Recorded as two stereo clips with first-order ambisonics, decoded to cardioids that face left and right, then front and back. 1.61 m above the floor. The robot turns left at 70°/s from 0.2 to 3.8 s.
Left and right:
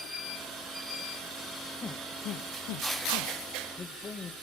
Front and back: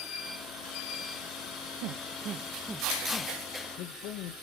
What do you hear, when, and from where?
1.8 s a man speaking: 165° left, 1.5 m; by 4.3 s 25° left, 1.5 m